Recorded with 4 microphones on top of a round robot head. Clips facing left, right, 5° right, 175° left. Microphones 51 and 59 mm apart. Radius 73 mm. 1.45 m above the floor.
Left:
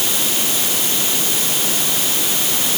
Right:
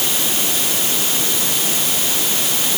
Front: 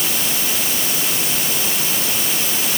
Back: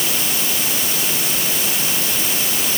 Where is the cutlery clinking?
No cutlery clinking in this recording.